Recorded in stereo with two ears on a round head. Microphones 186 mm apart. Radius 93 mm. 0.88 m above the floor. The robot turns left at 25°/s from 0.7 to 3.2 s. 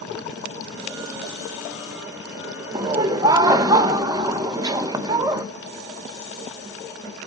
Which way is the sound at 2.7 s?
20° right (ahead or behind).